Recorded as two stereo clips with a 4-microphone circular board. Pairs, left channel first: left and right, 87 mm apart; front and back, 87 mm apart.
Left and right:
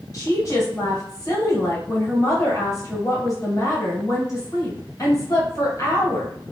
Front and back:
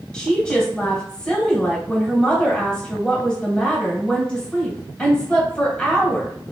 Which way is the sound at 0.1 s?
75° left.